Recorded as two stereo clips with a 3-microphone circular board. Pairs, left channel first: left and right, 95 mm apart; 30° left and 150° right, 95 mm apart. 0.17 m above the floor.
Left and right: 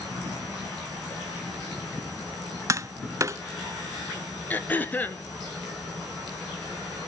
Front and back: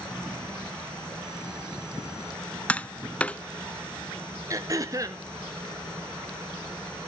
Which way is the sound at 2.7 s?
45° right.